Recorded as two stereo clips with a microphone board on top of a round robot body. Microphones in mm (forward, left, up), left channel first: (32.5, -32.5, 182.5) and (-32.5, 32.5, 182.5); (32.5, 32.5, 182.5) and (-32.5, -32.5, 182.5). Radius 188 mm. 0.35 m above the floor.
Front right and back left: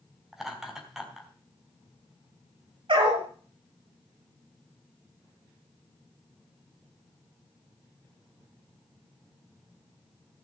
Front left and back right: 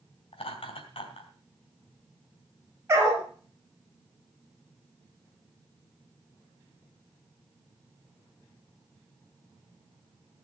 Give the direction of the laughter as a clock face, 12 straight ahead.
10 o'clock.